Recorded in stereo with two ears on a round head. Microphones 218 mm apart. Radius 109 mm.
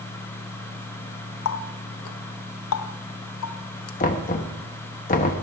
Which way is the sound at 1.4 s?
60° left (ahead or behind).